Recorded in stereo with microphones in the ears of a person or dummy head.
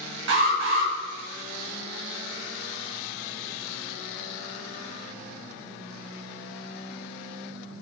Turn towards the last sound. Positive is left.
turn(degrees=-60)  # may be behind; listen again after turning